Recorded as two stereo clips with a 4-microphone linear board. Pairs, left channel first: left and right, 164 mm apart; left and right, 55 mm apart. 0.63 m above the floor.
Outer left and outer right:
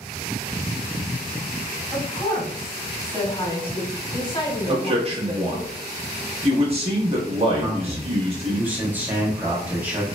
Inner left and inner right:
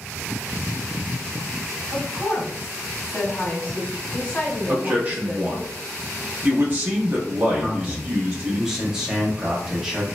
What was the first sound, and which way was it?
A woman speaking, 30° left (ahead or behind).